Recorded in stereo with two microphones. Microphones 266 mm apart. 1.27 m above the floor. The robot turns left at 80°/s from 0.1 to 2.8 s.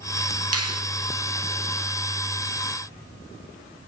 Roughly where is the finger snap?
Right.